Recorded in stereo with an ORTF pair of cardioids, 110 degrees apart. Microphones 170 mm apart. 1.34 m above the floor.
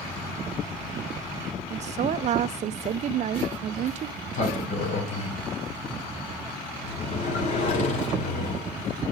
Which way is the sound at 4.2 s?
50° left.